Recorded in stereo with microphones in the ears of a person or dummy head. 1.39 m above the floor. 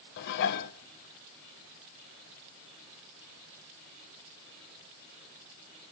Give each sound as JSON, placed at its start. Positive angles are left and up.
{"t": 0.2, "sound": "dishes clattering", "side_deg": 60, "distance_m": 0.7}